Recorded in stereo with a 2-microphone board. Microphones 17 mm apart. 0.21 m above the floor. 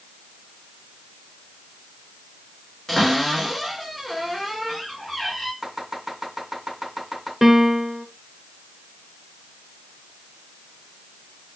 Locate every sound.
2.9 s a cupboard door: 15° left (ahead or behind), 2.5 m
5.6 s chopping: 5° right (ahead or behind), 2.5 m
7.4 s a piano: 15° right (ahead or behind), 0.5 m